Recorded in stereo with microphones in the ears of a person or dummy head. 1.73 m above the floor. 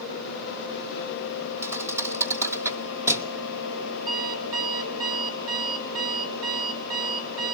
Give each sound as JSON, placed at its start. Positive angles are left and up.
{"t": 1.6, "sound": "a thud", "side_deg": -15, "distance_m": 2.0}
{"t": 4.1, "sound": "an alarm clock", "side_deg": -20, "distance_m": 4.5}